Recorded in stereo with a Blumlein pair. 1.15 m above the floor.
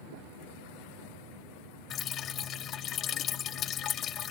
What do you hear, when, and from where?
1.9 s dripping: 30° left